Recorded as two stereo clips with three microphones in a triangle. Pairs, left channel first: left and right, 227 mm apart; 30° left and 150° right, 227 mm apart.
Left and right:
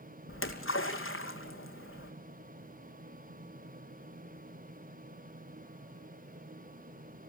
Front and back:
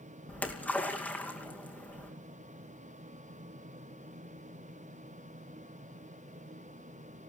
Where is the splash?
115° left, 2.5 m.